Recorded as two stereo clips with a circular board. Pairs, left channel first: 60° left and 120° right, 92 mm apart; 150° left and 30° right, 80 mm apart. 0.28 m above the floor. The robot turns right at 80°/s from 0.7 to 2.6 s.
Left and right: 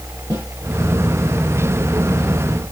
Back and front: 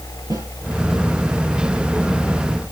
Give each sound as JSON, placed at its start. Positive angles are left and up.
{"t": 0.3, "sound": "a snare drum", "azimuth_deg": -65, "distance_m": 6.5}